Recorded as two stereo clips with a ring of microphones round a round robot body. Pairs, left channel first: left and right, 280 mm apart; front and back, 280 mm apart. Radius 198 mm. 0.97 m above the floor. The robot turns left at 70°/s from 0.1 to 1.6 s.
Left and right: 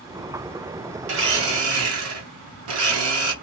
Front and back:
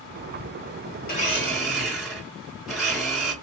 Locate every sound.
1.1 s a blender: 50° right, 0.9 m; by 3.3 s 90° right, 0.9 m